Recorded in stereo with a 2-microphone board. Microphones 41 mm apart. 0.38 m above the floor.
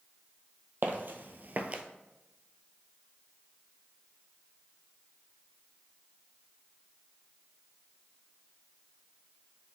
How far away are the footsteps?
About 0.7 m.